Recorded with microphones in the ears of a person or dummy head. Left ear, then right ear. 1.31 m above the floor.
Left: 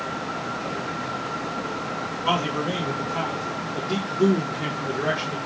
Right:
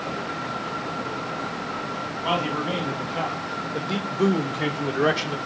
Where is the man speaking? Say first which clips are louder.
Left 1 dB; 5° left (ahead or behind), 2 m; by 5.4 s 70° right (ahead or behind), 1.1 m.